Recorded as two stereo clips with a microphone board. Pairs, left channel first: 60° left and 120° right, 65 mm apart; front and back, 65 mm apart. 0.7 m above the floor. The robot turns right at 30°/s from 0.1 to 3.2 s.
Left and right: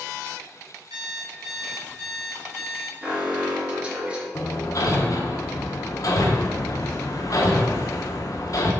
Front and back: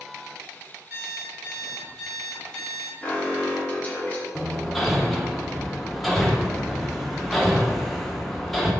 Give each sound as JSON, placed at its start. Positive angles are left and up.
{"t": 0.9, "sound": "an alarm clock", "azimuth_deg": -120, "distance_m": 3.0}
{"t": 3.0, "sound": "an alarm", "azimuth_deg": -60, "distance_m": 1.6}
{"t": 4.3, "sound": "hammering", "azimuth_deg": 85, "distance_m": 1.1}